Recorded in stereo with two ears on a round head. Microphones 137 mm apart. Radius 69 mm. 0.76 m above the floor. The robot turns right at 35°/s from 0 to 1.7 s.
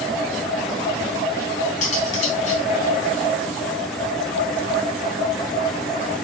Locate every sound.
1.8 s cutlery clinking: 50° left (ahead or behind), 4.5 m